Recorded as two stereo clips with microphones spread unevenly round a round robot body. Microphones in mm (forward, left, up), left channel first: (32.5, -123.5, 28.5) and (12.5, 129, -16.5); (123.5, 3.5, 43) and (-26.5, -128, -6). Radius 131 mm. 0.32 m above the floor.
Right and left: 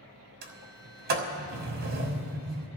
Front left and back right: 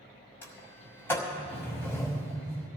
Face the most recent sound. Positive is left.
turn(degrees=130)